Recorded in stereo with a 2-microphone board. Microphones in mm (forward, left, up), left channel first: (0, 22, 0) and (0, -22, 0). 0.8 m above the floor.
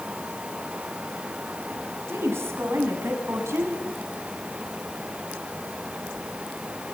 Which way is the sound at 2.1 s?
80° right.